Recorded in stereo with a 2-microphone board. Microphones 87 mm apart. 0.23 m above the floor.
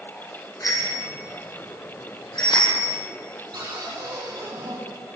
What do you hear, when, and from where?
0.6 s a bicycle bell: 45° left (ahead or behind), 6.5 m; by 3.0 s 65° left (ahead or behind), 6 m
3.5 s a cupboard door: 50° right (ahead or behind), 8 m